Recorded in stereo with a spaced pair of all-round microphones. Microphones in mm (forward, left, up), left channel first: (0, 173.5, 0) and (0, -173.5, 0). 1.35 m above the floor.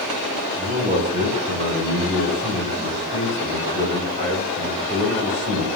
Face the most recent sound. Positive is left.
turn(degrees=-30)  # may be behind; listen again after turning